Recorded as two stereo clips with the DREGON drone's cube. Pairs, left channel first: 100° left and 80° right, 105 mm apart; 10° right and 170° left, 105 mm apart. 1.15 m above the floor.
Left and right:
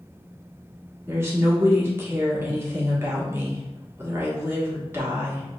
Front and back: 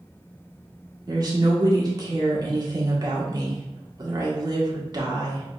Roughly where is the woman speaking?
Behind right.